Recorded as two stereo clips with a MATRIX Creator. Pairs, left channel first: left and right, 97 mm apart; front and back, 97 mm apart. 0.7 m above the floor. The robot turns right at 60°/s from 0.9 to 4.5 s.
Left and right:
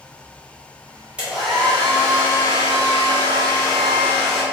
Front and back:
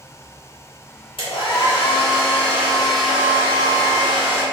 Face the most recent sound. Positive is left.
turn(degrees=-175)